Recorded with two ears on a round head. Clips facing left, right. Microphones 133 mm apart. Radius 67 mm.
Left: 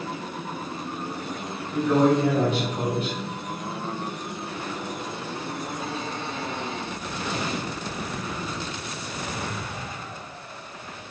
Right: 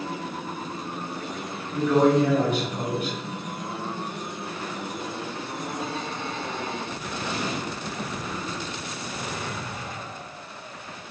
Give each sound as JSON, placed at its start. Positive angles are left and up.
{"t": 1.7, "sound": "a man speaking", "side_deg": 25, "distance_m": 1.8}